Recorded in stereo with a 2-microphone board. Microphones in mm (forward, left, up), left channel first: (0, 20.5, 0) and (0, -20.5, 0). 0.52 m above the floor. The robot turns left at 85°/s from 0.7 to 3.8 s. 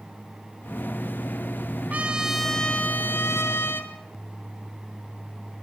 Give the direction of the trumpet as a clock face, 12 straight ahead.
5 o'clock.